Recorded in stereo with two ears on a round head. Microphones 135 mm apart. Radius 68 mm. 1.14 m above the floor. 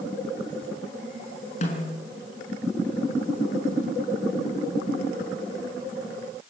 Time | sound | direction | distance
1.6 | a snare drum | 45° left (ahead or behind) | 6 m